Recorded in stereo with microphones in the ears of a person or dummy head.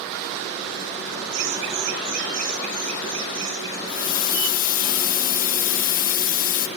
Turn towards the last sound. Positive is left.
turn(degrees=50)  # may be behind; listen again after turning